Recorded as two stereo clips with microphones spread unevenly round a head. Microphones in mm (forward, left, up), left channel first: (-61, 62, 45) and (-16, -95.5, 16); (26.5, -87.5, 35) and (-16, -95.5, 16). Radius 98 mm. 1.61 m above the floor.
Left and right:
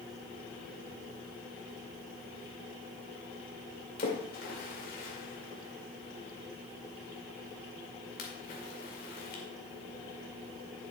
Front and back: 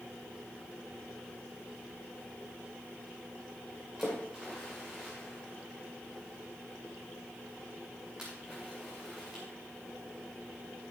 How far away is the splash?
About 2 m.